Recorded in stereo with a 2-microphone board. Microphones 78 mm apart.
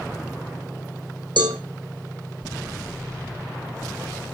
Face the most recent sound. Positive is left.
turn(degrees=-80)